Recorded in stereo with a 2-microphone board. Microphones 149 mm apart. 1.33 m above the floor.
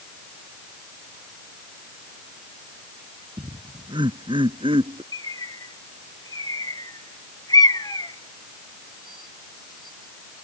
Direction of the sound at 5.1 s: 25° left (ahead or behind).